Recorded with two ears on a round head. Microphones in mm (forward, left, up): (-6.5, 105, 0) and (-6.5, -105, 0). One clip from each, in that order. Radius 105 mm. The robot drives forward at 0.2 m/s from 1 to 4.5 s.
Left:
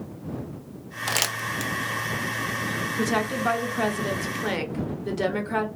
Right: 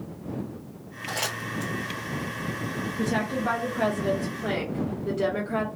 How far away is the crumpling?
About 0.5 m.